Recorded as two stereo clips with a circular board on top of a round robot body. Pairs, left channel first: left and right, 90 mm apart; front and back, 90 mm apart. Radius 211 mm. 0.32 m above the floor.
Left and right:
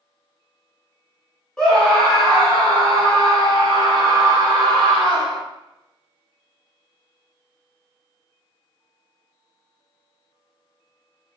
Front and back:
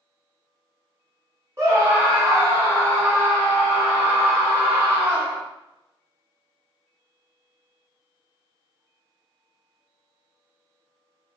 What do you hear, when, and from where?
1.6 s a scream: 170° left, 1.6 m; by 5.4 s 120° right, 2.5 m